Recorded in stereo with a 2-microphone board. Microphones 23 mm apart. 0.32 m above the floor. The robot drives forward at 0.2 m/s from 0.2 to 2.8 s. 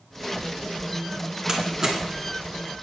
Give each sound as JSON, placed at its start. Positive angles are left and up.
{"t": 1.5, "sound": "a door slam", "side_deg": -20, "distance_m": 2.5}